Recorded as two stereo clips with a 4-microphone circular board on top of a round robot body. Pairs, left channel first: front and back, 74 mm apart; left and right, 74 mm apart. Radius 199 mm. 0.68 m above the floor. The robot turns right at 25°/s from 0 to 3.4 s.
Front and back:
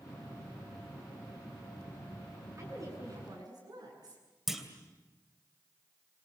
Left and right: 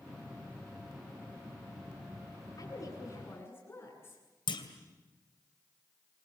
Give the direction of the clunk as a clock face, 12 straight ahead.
9 o'clock.